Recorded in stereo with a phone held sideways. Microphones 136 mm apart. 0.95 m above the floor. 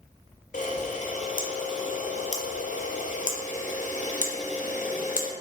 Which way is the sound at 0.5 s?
70° left (ahead or behind).